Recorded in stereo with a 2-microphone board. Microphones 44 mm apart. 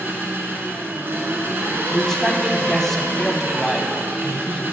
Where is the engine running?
55° right (ahead or behind), 1.6 m.